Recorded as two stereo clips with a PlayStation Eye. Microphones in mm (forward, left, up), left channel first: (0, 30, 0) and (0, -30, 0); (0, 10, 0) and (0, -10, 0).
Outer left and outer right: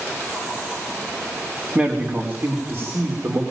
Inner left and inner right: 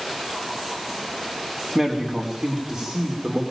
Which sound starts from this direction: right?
A man speaking, at 1.8 s.